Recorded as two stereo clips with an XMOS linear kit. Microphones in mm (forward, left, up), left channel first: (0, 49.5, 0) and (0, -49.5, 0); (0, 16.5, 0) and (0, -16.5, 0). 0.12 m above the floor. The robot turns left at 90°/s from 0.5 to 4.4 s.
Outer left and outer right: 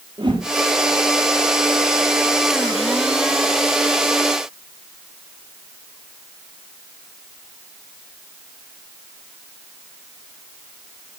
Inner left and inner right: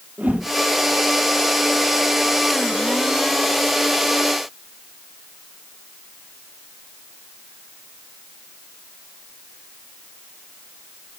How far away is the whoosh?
About 3.5 m.